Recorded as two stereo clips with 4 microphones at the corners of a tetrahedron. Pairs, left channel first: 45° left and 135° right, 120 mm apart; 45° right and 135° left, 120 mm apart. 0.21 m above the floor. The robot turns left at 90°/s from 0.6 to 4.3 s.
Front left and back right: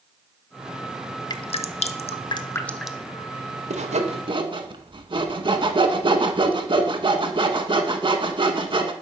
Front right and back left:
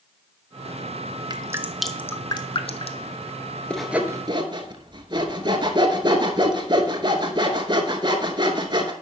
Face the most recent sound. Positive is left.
turn(degrees=180)